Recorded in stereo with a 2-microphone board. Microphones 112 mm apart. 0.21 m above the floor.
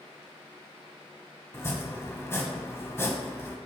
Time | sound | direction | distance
1.5 | chopping | 25° left (ahead or behind) | 1.5 m